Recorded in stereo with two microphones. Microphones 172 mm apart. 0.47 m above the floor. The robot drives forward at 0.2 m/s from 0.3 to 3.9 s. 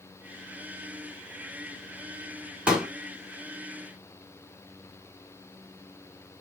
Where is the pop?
5° right (ahead or behind), 1.2 m.